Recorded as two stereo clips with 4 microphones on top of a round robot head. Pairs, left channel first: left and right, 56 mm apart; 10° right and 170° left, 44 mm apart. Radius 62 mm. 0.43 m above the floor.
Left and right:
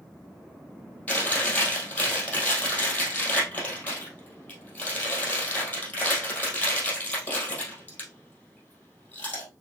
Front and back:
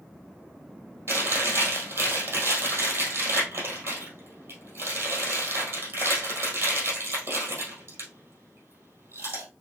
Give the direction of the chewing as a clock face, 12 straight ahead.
7 o'clock.